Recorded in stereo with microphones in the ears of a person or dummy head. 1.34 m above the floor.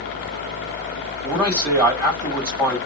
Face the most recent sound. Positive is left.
turn(degrees=-20)  # may be behind; listen again after turning